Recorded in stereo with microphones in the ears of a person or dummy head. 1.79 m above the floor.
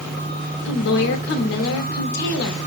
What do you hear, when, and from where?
0.7 s a woman speaking: 55° left (ahead or behind), 1.0 m